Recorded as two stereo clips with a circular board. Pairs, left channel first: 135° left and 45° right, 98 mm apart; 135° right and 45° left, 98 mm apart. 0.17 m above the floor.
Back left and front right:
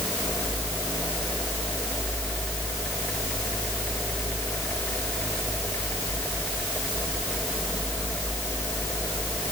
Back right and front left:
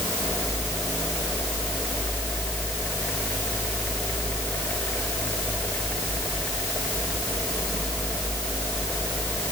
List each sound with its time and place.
Only background noise.